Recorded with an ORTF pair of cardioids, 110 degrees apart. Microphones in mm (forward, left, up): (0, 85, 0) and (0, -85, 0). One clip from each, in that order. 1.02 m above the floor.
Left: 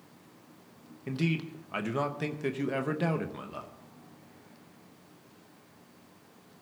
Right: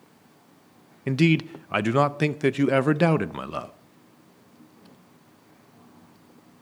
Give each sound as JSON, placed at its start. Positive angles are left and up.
{"t": 1.1, "sound": "a man speaking", "azimuth_deg": -50, "distance_m": 0.6}